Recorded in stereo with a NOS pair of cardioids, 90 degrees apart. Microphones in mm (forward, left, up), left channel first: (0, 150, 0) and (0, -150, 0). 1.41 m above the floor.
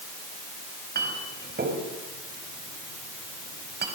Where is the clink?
35° right, 5 m.